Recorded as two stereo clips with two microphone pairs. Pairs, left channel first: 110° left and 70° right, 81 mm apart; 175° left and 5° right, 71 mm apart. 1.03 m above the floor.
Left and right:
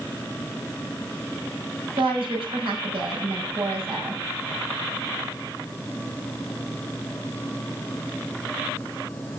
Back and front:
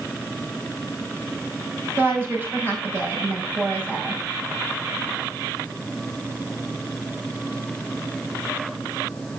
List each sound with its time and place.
2.0 s a woman speaking: 70° right, 5.5 m